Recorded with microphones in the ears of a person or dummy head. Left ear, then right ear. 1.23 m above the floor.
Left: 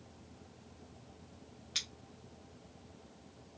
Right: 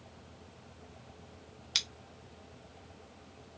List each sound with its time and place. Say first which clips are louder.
1.8 s scissors: right 6 dB; 30° right (ahead or behind), 0.5 m